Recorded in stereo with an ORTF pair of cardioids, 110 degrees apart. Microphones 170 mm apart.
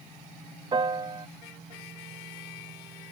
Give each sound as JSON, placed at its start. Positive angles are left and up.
{"t": 0.7, "sound": "a piano", "azimuth_deg": -30}